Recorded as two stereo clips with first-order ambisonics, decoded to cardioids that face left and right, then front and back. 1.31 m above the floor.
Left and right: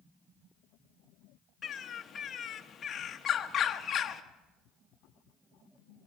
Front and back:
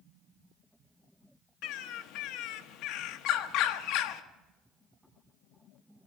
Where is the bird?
25° left, 1.0 m.